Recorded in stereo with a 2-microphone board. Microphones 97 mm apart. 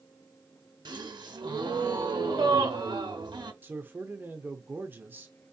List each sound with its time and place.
0.8 s a gasp: 55° right (ahead or behind), 0.9 m
3.6 s a man speaking: 25° right (ahead or behind), 0.8 m